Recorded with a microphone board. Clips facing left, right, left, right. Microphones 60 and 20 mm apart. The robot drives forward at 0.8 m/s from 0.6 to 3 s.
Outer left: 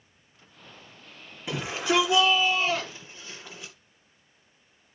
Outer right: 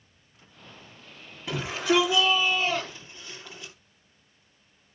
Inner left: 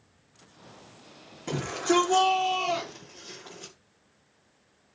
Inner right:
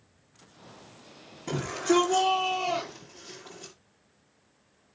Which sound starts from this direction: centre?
A shout, at 1.5 s.